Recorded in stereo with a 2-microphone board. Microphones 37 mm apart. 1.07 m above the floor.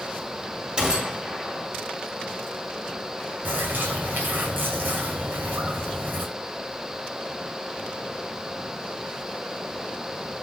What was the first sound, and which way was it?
A gunshot, 25° right (ahead or behind).